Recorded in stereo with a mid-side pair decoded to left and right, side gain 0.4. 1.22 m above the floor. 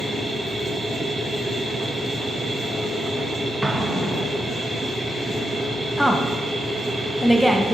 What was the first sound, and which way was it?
A machine running, 25° right.